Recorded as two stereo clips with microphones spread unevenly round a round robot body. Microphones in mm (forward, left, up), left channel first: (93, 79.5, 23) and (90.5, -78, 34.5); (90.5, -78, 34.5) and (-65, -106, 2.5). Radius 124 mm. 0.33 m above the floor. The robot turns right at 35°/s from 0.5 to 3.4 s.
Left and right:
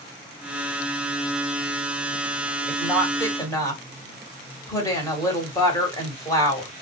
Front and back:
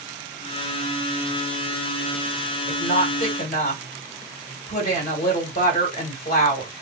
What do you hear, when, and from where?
2.7 s a woman speaking: 5° left, 1.9 m; by 6.7 s 35° left, 1.9 m